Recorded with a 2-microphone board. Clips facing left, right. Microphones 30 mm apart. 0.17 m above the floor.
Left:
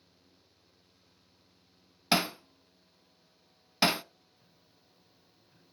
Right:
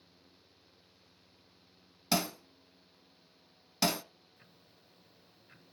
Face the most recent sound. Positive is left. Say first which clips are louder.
# right 3 dB
turn(degrees=-60)  # may be behind; listen again after turning